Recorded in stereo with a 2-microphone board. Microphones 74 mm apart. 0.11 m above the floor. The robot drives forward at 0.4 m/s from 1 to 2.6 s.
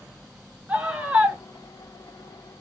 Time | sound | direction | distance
0.7 | a scream | 15° right (ahead or behind) | 1.1 m